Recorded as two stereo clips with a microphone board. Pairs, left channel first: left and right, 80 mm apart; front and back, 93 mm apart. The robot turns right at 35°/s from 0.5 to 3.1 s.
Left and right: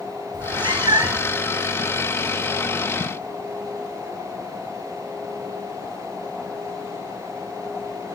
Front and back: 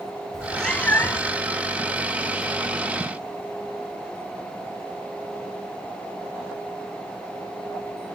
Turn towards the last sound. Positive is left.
turn(degrees=5)